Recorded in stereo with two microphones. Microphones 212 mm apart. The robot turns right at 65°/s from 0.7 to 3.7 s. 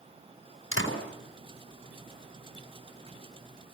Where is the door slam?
85° left, 4.5 m; by 1.0 s 70° left (ahead or behind), 4.5 m.